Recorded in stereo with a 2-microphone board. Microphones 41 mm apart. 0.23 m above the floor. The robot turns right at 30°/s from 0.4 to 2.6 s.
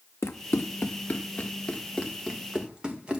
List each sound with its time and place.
0.2 s running footsteps: 80° left, 1.1 m; by 3.2 s 20° right (ahead or behind), 2.5 m